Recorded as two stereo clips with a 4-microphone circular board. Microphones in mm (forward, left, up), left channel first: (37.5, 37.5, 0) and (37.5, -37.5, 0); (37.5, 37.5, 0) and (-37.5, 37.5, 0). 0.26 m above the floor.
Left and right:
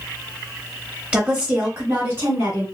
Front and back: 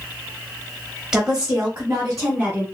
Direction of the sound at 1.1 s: 120° right.